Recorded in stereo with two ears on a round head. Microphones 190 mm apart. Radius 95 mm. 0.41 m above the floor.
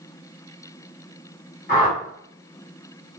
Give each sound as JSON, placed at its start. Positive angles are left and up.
{"t": 1.7, "sound": "a whoosh", "side_deg": 40, "distance_m": 1.9}